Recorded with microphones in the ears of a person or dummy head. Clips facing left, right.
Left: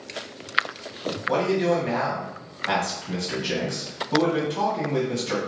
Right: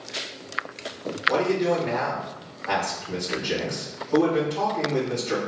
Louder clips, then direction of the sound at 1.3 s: Even; 40° left (ahead or behind).